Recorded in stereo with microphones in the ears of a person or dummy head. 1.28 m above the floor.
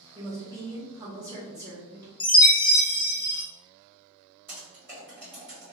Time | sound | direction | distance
0.1 | a woman speaking | 15° right (ahead or behind) | 1.2 m
2.2 | a chime | 30° left (ahead or behind) | 0.9 m
4.5 | typing on a keyboard | 10° right (ahead or behind) | 1.3 m